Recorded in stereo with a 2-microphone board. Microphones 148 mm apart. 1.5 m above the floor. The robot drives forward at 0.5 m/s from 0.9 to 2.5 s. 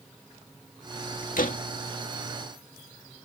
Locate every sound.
1.4 s a door slam: 70° left (ahead or behind); by 1.6 s 65° left (ahead or behind)